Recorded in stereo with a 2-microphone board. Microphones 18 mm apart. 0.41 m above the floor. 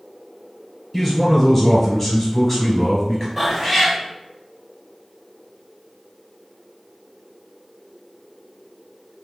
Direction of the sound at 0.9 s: 15° left (ahead or behind).